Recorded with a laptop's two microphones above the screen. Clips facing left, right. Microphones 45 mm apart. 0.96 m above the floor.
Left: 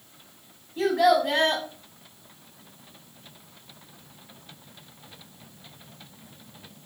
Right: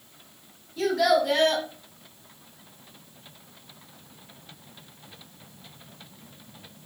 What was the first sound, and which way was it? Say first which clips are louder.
A child speaking: left 1 dB; 25° left (ahead or behind).